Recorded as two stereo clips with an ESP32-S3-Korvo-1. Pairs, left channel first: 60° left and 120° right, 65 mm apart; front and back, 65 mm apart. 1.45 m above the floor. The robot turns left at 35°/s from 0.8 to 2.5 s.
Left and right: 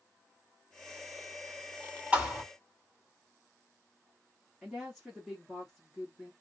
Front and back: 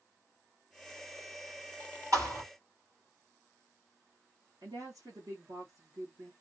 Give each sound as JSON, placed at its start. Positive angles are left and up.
{"t": 2.1, "sound": "a thud", "azimuth_deg": 175, "distance_m": 2.5}
{"t": 4.6, "sound": "a woman speaking", "azimuth_deg": 150, "distance_m": 1.9}